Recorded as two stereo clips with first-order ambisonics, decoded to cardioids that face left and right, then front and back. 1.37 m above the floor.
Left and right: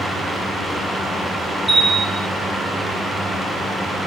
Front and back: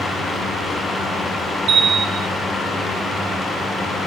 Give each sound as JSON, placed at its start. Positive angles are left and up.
{"t": 1.7, "sound": "a bell", "azimuth_deg": -170, "distance_m": 1.0}